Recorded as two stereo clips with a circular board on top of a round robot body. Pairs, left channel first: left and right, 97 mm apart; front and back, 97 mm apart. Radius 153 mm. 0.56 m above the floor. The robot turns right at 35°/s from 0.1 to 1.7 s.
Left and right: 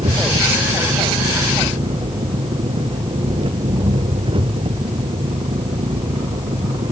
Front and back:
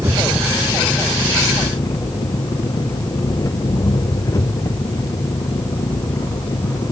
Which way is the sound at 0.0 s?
115° right.